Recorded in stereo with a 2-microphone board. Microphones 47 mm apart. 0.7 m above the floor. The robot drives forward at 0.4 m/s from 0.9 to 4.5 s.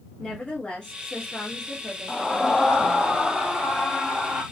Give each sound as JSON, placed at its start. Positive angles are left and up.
{"t": 0.2, "sound": "a woman speaking", "side_deg": 10, "distance_m": 1.3}
{"t": 2.1, "sound": "a scream", "side_deg": 10, "distance_m": 0.8}